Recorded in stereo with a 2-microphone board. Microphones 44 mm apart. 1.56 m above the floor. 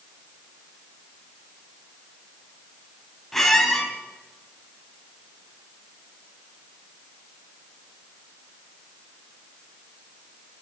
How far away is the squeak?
About 2.5 m.